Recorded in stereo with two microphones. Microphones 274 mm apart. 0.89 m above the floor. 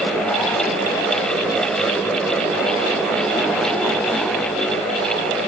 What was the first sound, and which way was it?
Only background noise.